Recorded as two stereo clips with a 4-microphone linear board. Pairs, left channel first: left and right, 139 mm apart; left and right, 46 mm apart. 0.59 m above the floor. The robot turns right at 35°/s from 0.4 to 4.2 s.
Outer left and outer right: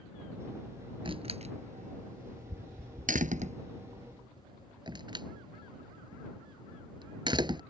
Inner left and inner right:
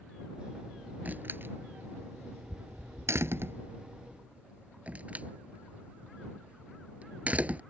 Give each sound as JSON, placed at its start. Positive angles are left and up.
{"t": 1.1, "sound": "a door slam", "side_deg": -35}